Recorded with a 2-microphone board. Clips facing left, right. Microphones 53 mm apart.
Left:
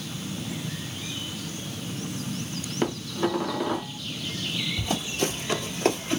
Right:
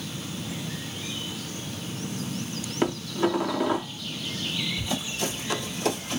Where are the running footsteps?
45° left (ahead or behind), 2 m; by 6.2 s 30° left (ahead or behind), 1.6 m.